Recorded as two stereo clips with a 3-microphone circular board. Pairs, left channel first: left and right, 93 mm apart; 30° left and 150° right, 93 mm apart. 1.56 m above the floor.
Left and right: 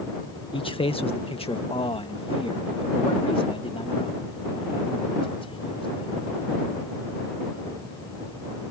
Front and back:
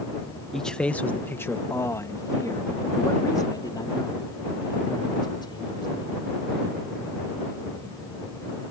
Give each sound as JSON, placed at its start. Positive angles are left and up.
{"t": 0.5, "sound": "a man speaking", "azimuth_deg": 120}